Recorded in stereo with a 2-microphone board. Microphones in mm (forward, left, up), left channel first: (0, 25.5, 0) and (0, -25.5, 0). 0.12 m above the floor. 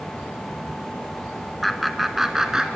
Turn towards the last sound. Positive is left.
turn(degrees=-15)  # may be behind; listen again after turning